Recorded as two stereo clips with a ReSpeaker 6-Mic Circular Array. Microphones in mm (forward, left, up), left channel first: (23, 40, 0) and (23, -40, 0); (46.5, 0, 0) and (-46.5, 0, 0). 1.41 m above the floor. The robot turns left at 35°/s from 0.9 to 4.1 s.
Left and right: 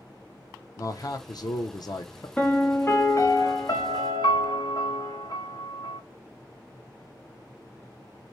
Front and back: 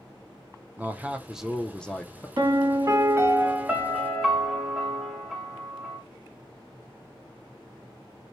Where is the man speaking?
115° left, 0.5 m; by 2.3 s 65° left, 0.5 m.